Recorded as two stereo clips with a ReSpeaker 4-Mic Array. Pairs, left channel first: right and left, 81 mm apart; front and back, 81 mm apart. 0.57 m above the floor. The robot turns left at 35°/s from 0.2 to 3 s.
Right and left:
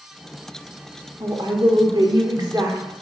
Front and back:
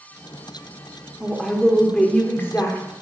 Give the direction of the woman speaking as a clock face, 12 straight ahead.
9 o'clock.